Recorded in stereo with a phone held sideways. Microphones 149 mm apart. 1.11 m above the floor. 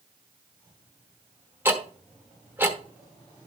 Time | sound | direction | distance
1.6 | ticking | 15° right (ahead or behind) | 1.1 m